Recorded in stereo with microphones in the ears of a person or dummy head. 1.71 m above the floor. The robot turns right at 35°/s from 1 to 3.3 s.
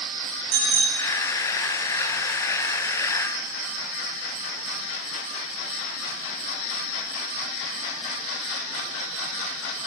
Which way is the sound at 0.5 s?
65° right (ahead or behind).